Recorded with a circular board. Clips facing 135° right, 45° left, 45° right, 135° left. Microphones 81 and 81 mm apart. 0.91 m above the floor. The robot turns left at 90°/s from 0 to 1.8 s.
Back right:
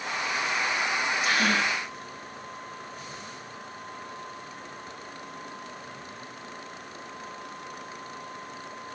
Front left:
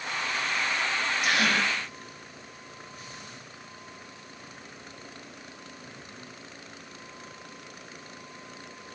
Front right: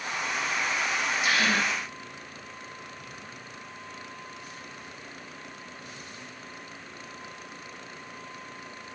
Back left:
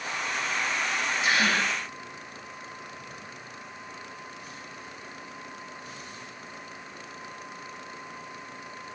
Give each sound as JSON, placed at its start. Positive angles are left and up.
{"t": 1.2, "sound": "a gasp", "azimuth_deg": 70, "distance_m": 4.5}